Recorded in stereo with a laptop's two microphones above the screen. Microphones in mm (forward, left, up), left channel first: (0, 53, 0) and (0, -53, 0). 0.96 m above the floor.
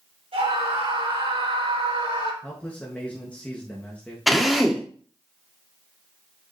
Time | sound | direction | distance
0.3 | a scream | 65° right (ahead or behind) | 4 m
2.4 | a man speaking | 10° left (ahead or behind) | 1.1 m
4.3 | a drill | centre (ahead or behind) | 1.3 m